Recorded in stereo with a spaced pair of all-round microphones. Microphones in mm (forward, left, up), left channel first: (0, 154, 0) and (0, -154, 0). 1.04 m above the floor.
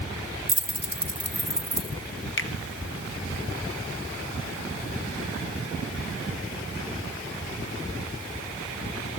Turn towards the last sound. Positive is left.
turn(degrees=40)  # may be behind; listen again after turning